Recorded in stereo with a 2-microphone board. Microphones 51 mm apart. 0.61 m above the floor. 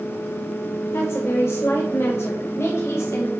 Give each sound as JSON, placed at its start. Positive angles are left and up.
{"t": 0.9, "sound": "a woman speaking", "side_deg": 60, "distance_m": 1.6}